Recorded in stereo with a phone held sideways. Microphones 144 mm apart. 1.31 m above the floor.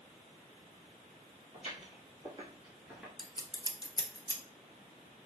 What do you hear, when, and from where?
1.5 s footsteps: 55° right (ahead or behind), 2.5 m; by 3.1 s 5° right (ahead or behind), 1.4 m
3.2 s scissors: 25° left (ahead or behind), 0.6 m